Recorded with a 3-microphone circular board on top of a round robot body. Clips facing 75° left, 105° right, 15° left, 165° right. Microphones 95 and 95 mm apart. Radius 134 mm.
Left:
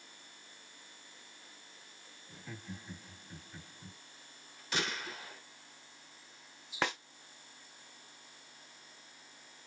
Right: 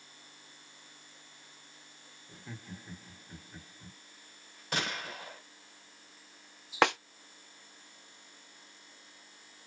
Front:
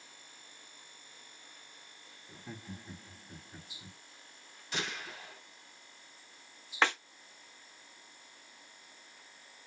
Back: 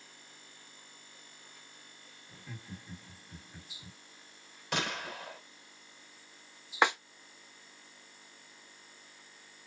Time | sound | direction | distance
2.3 | laughter | 30° right | 1.8 m
4.7 | a gunshot | 140° right | 2.5 m
6.8 | a snare drum | 90° right | 0.7 m